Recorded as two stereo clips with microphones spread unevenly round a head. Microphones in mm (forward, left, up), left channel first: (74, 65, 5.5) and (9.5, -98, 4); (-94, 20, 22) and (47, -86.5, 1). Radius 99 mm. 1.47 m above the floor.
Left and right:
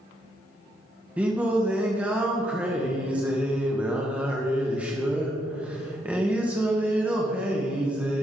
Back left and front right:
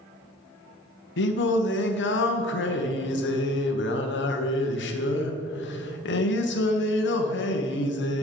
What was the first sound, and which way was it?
Singing, 165° left.